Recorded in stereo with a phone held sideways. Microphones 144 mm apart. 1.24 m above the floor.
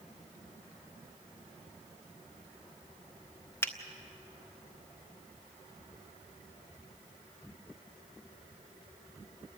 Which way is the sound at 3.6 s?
15° left (ahead or behind).